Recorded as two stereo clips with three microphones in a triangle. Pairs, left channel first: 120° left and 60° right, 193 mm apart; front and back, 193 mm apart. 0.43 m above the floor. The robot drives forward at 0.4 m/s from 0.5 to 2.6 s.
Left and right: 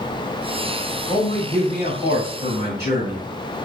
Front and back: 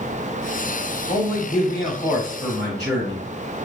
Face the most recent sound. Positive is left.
turn(degrees=85)